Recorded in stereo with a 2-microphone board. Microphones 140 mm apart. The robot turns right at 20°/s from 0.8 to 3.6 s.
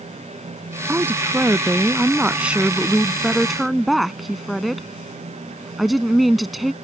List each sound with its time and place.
0.9 s a woman speaking: 15° right (ahead or behind); by 6.7 s centre (ahead or behind)